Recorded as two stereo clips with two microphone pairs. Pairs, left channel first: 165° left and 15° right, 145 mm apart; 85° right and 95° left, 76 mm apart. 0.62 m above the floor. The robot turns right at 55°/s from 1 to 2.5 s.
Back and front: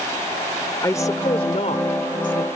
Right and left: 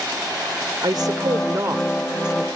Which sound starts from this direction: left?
A woman speaking, at 0.8 s.